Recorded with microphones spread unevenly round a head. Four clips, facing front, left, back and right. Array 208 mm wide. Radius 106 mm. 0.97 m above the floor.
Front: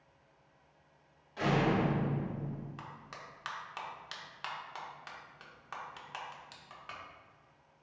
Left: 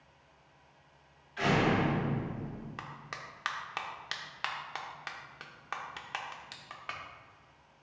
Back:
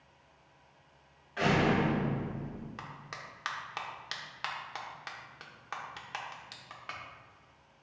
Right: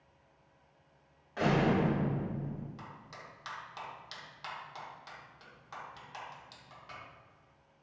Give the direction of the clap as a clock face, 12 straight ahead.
8 o'clock.